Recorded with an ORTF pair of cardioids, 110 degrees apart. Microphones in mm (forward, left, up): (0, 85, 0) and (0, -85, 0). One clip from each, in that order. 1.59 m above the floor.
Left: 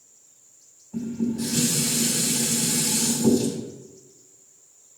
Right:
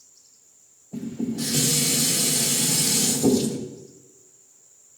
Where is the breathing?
No breathing in this recording.